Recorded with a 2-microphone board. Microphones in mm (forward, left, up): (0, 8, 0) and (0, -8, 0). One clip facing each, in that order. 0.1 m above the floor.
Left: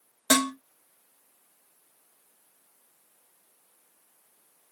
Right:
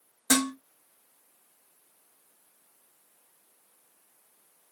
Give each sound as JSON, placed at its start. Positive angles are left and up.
{"t": 0.3, "sound": "dishes clattering", "side_deg": 55, "distance_m": 2.0}